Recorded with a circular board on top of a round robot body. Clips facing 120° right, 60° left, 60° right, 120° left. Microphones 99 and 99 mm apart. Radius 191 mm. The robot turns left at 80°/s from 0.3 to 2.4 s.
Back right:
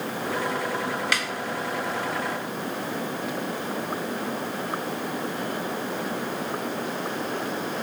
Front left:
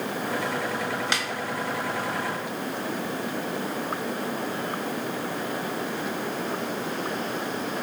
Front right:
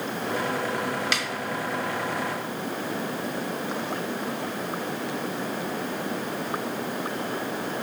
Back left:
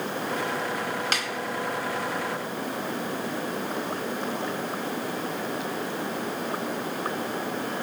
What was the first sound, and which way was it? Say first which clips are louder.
A snare drum: back right 1 dB, even; 110° left.